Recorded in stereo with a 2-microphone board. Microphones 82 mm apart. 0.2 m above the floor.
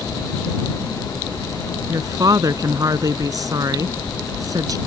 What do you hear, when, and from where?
1.9 s a woman speaking: 50° right (ahead or behind)